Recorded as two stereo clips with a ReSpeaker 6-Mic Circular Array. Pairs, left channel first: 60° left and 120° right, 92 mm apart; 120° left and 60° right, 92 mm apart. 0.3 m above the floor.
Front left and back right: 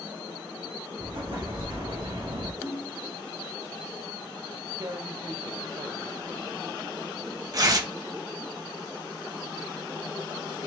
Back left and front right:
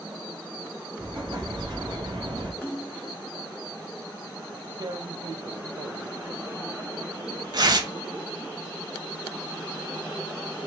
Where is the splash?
160° right, 1.3 m.